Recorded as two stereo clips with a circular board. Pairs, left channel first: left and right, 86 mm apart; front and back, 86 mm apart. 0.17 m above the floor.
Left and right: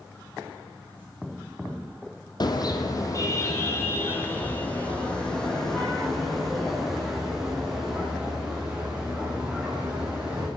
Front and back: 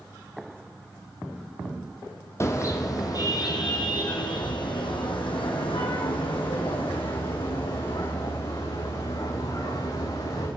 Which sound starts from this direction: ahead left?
A car horn, at 2.4 s.